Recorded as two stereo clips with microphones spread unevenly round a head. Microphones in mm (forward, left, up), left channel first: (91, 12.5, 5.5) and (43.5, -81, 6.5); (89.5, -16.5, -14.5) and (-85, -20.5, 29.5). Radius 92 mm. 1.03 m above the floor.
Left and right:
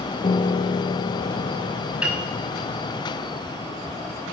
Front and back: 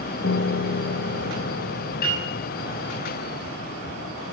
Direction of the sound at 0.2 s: 30° left.